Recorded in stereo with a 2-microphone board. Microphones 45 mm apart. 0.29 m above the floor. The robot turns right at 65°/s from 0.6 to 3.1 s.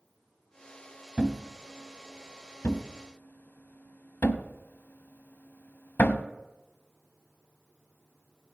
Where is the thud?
25° right (ahead or behind), 0.7 m; by 6.2 s 60° left (ahead or behind), 0.7 m.